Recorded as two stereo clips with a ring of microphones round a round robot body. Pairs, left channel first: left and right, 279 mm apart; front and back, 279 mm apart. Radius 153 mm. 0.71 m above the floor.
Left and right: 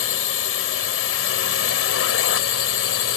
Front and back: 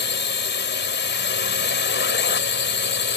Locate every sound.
0.0 s a drone: 50° left